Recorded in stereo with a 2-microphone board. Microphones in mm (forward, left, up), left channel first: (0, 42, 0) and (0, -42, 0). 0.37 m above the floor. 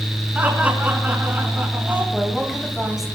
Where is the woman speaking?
5° right (ahead or behind), 2 m.